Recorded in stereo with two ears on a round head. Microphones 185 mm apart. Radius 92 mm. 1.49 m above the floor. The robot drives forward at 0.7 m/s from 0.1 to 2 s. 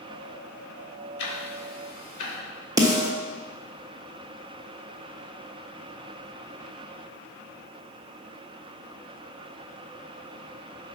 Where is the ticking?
55° left (ahead or behind), 1.7 m; by 2.4 s 45° left (ahead or behind), 1.9 m.